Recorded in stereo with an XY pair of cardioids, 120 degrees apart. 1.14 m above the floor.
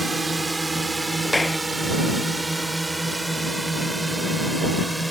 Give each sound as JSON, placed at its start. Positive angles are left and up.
{"t": 0.0, "sound": "a drone", "azimuth_deg": -20}
{"t": 1.2, "sound": "a clap", "azimuth_deg": 10}